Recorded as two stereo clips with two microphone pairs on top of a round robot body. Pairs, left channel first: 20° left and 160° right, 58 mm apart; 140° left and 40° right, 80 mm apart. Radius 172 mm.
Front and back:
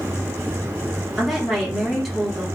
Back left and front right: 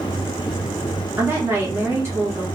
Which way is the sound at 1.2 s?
70° right.